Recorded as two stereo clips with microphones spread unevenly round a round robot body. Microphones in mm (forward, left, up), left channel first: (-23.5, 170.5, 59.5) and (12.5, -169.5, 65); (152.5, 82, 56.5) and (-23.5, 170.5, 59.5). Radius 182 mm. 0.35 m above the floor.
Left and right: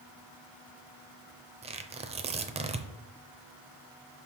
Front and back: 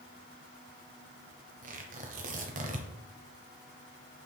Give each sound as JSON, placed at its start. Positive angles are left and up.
{"t": 1.6, "sound": "tearing paper", "azimuth_deg": -155, "distance_m": 0.7}